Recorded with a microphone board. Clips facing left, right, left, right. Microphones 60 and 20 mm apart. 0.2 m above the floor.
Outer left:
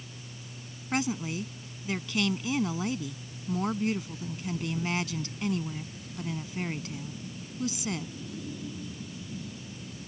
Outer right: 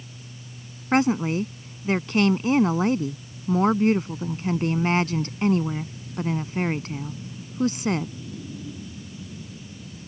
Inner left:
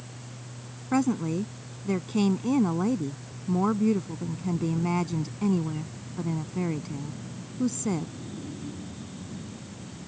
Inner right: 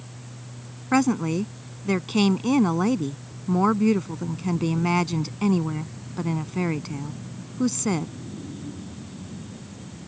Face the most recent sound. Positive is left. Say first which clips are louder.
# outer right 10 dB, inner right 4 dB
turn(degrees=-45)  # may be behind; listen again after turning